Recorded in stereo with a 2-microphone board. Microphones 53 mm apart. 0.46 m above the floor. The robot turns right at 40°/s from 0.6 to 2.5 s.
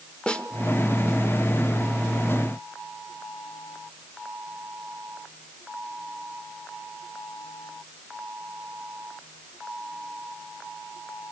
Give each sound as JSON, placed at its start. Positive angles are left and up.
{"t": 0.3, "sound": "a snare drum", "side_deg": 20, "distance_m": 1.2}